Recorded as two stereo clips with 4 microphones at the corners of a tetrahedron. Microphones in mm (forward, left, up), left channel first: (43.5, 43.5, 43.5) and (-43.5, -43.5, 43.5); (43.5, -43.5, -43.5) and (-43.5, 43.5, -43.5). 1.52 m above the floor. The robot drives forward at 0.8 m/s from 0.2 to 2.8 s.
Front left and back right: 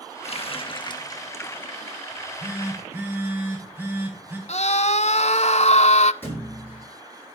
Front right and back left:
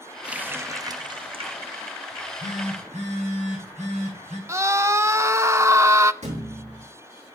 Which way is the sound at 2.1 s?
150° left.